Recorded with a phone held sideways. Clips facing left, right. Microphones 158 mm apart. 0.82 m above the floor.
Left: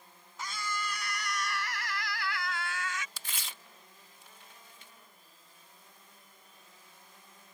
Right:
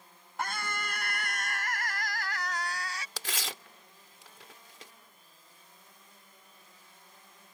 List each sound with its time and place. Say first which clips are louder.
0.4 s a scream: right 2 dB; 55° right (ahead or behind); by 3.1 s 30° right (ahead or behind)
3.2 s tearing paper: right 8 dB; 85° right